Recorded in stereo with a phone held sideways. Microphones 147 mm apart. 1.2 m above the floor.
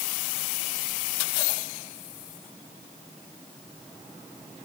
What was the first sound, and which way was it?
Only background noise.